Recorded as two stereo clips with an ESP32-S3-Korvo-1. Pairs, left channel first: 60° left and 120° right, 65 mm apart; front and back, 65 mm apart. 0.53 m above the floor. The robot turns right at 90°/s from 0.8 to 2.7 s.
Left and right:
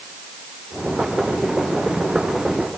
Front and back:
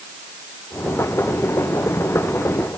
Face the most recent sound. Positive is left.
No sound to turn to.